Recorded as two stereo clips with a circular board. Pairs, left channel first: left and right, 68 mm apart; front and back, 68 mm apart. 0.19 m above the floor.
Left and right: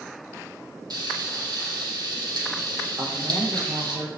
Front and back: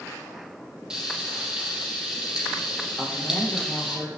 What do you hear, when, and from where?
0.9 s frying: 100° right, 5.5 m
3.0 s a man speaking: 105° right, 8.5 m